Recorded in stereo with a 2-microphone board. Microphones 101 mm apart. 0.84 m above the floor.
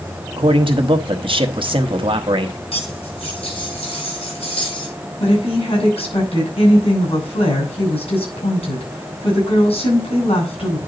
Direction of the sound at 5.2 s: 70° left (ahead or behind).